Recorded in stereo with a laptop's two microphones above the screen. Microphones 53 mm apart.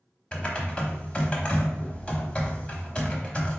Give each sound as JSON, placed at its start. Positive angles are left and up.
{"t": 0.3, "sound": "typing on a keyboard", "side_deg": 20, "distance_m": 0.8}